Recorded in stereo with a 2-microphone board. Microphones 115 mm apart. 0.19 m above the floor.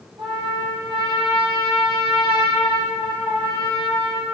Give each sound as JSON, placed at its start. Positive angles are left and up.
{"t": 0.2, "sound": "a trumpet", "side_deg": -45, "distance_m": 3.5}